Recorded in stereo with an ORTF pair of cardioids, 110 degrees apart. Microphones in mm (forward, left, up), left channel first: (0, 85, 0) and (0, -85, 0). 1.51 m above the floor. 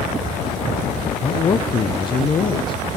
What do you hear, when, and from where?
1.2 s a man speaking: 30° left, 0.5 m